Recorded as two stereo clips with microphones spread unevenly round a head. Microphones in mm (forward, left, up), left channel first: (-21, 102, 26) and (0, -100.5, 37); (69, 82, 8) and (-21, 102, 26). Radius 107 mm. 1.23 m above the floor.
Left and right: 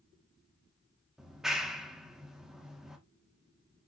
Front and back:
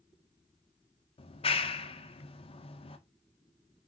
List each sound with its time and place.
1.2 s a clap: 5° left, 1.6 m